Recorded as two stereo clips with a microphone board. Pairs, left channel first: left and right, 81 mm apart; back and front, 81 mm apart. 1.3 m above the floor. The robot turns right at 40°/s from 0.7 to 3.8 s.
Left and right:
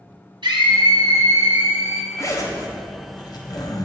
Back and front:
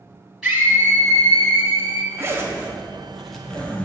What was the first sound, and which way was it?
A scream, 80° right.